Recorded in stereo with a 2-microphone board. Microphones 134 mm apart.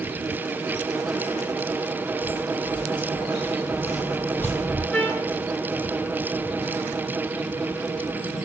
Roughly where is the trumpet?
Centre.